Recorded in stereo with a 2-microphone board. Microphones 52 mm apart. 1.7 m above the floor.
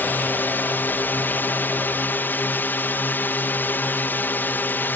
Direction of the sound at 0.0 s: 40° left (ahead or behind).